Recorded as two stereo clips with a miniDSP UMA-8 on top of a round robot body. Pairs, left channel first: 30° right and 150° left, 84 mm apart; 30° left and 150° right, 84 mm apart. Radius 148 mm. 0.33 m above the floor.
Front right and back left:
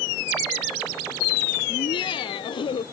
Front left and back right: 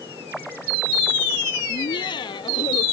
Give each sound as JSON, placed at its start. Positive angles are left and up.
{"t": 1.7, "sound": "laughter", "azimuth_deg": -5}